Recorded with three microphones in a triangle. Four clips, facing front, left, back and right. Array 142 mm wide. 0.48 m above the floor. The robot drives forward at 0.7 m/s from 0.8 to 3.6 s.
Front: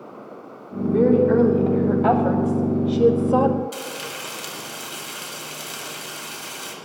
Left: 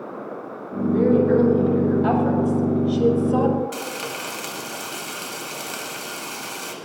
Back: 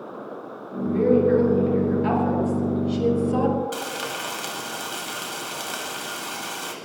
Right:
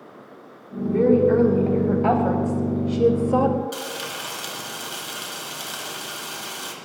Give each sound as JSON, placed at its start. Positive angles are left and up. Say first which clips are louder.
{"t": 0.8, "sound": "a woman speaking", "louder": "even, front 2 dB", "azimuth_deg": -10, "distance_m": 3.5}
{"t": 3.7, "sound": "frying", "louder": "left 2 dB, back 3 dB", "azimuth_deg": 165, "distance_m": 2.5}